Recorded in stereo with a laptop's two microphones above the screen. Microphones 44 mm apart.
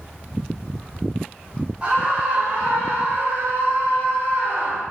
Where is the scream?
25° right (ahead or behind), 3 m; by 4.8 s 60° right (ahead or behind), 4 m.